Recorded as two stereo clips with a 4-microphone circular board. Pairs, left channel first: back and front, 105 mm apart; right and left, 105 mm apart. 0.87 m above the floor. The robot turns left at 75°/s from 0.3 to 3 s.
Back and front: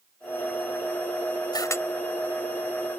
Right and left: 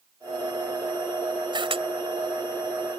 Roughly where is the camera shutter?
Behind left.